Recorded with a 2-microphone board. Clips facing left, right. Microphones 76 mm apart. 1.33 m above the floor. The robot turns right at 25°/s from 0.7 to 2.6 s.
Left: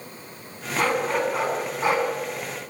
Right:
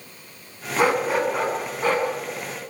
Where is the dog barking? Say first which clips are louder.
Right 3 dB; 15° right, 5 m; by 2.1 s 20° left, 5 m.